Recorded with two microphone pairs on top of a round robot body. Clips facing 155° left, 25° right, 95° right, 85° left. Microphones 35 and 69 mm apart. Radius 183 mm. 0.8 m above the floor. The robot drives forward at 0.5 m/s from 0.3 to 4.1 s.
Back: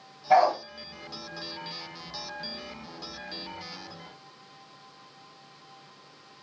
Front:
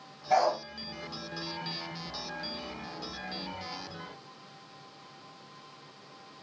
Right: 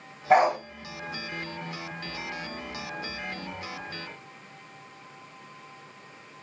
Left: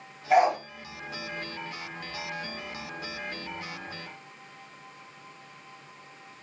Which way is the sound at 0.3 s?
145° right.